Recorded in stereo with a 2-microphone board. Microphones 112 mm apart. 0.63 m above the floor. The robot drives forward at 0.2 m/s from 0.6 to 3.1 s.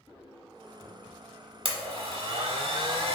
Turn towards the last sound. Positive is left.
turn(degrees=-60)  # may be behind; listen again after turning